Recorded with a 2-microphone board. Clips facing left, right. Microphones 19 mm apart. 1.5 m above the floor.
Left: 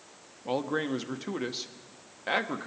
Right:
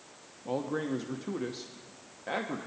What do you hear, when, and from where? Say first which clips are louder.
0.5 s a man speaking: left 3 dB; 45° left (ahead or behind), 1.0 m